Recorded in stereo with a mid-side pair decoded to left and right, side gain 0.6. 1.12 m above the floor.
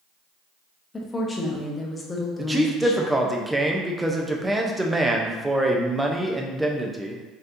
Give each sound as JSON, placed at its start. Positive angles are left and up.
{"t": 0.9, "sound": "a woman speaking", "azimuth_deg": 25, "distance_m": 0.9}
{"t": 2.4, "sound": "a man speaking", "azimuth_deg": -10, "distance_m": 0.6}